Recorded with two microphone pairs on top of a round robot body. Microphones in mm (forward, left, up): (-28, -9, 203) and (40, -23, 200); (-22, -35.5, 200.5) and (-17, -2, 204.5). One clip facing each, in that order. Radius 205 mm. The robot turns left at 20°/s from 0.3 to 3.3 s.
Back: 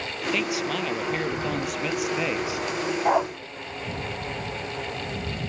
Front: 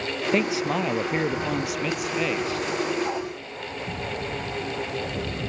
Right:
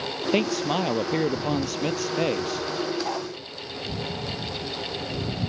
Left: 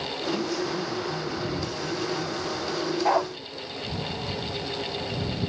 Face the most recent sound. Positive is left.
turn(degrees=135)